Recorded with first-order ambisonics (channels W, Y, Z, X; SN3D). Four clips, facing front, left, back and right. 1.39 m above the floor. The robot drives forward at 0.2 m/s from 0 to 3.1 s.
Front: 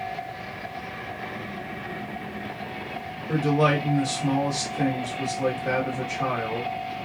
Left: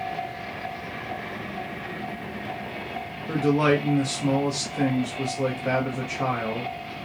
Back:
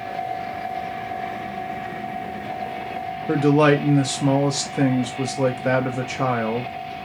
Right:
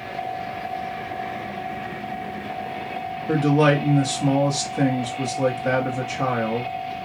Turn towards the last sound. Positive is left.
turn(degrees=-165)